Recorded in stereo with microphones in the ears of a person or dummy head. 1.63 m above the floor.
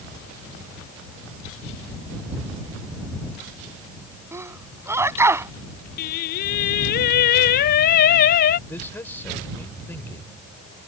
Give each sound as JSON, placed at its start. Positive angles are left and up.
{"t": 4.3, "sound": "a sneeze", "side_deg": -15}
{"t": 6.0, "sound": "singing", "side_deg": 50}
{"t": 8.7, "sound": "a man speaking", "side_deg": 10}